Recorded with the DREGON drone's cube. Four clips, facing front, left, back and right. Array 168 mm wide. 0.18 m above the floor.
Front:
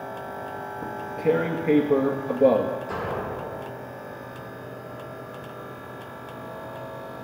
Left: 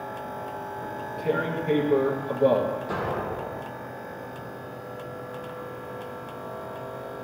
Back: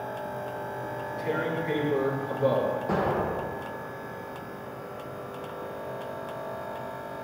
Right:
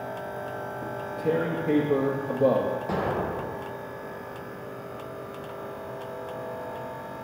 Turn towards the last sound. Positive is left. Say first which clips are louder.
# right 1 dB, back 3 dB
turn(degrees=-140)